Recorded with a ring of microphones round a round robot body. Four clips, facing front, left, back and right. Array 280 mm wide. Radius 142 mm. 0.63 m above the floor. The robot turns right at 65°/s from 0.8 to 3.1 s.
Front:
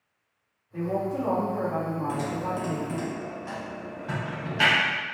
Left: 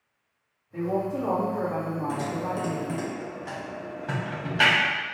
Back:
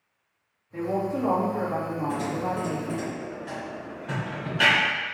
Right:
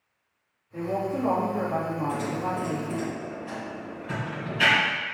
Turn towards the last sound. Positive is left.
turn(degrees=85)